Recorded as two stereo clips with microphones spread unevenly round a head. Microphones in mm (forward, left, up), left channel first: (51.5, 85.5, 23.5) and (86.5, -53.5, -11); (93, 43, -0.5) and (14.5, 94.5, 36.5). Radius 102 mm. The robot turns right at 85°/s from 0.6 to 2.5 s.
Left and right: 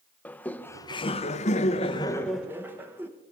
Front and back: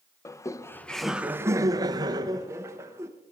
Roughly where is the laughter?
Ahead left.